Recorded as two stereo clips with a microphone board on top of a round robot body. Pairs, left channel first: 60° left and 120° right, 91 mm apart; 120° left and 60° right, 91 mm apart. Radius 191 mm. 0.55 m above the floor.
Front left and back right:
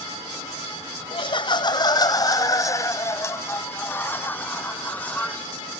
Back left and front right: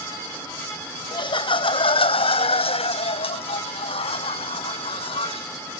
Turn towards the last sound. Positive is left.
turn(degrees=135)